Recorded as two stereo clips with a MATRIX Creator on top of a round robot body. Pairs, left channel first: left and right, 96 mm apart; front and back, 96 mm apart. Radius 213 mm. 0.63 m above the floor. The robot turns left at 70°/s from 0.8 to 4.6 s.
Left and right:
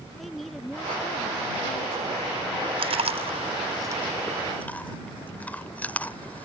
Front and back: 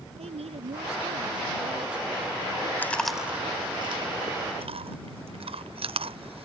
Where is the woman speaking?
Straight behind; by 2.7 s 45° left.